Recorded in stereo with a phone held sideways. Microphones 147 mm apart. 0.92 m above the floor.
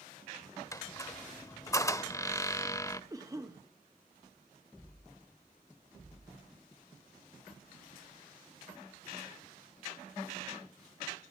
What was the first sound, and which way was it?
A squeak, 20° left (ahead or behind).